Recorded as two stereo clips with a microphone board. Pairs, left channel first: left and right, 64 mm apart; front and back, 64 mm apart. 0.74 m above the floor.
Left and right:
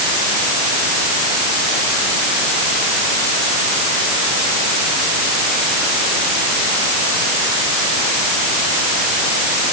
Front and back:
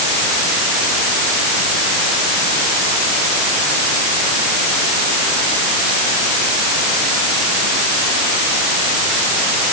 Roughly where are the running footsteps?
No running footsteps in this recording.